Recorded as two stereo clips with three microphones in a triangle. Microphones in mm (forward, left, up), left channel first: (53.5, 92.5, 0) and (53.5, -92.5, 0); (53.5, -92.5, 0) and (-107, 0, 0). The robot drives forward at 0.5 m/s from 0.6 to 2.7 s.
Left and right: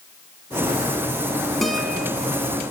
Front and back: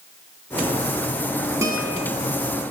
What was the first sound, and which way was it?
A guitar, 175° left.